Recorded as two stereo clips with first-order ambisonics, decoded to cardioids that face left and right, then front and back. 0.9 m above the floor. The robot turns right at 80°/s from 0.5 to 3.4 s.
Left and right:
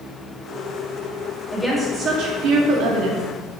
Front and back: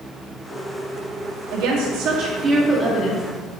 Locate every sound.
1.5 s a woman speaking: 170° left, 1.6 m; by 3.2 s 50° right, 1.6 m